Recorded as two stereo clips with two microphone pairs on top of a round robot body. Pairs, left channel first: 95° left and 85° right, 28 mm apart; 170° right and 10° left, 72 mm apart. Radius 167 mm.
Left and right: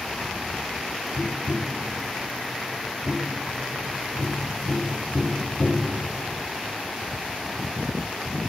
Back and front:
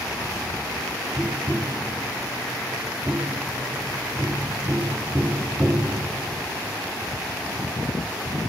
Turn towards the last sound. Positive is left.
turn(degrees=75)